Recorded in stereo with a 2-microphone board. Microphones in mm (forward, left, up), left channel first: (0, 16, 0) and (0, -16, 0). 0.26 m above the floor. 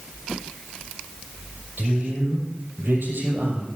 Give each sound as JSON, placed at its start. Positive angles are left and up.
{"t": 1.8, "sound": "a man speaking", "side_deg": -80, "distance_m": 6.0}